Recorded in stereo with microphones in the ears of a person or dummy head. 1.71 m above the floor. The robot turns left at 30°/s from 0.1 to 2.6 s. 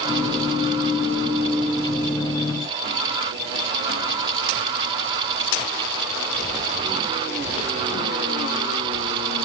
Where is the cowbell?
No cowbell in this recording.